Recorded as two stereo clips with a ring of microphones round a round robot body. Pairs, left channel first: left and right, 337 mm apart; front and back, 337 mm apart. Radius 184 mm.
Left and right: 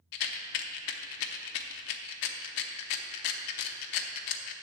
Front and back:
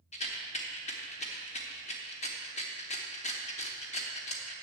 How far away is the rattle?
About 0.7 m.